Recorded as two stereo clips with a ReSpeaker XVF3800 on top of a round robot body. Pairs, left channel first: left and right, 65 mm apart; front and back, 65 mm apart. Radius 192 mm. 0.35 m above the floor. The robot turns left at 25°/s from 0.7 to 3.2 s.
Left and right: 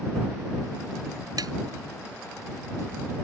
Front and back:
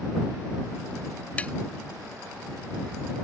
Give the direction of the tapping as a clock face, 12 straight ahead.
2 o'clock.